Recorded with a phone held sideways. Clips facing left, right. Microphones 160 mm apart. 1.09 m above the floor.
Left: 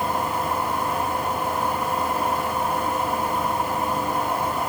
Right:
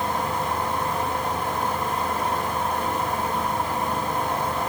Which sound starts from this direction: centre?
A fan, at 0.0 s.